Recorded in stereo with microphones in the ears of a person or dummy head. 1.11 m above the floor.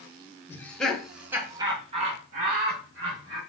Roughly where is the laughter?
Centre.